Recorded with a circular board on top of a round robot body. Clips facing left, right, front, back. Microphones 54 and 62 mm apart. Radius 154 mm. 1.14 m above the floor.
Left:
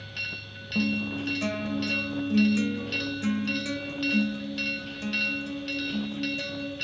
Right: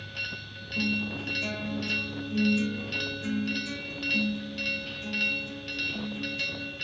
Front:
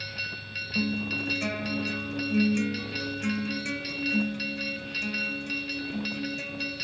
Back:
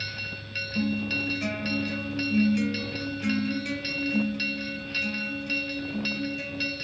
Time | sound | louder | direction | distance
0.8 | a guitar | left 2 dB, back 1 dB | 80° left | 0.8 m